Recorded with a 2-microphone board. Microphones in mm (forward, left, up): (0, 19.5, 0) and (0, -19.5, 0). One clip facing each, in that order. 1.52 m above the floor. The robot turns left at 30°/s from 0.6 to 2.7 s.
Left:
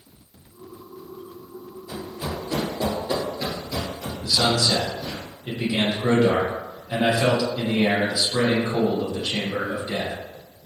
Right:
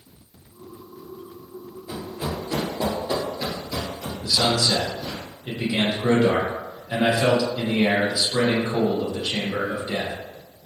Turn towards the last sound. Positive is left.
turn(degrees=-15)  # may be behind; listen again after turning